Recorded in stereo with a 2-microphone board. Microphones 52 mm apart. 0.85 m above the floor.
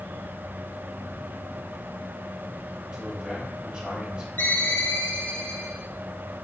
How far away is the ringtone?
About 3.5 m.